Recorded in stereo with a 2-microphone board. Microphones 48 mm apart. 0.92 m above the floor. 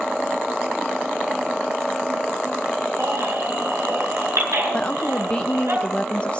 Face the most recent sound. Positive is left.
turn(degrees=20)  # may be behind; listen again after turning